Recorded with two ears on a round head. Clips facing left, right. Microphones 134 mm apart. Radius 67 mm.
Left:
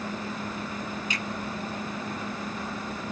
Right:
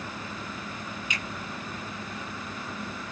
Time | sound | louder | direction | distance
1.1 | a finger snap | left 3 dB | 30° left (ahead or behind) | 1.0 m